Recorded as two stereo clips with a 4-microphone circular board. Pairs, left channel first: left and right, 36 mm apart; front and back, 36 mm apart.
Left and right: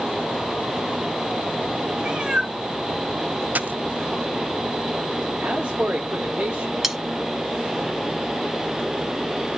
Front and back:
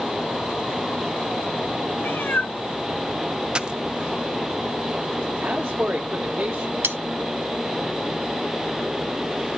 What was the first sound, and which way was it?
A cat meowing, 25° right.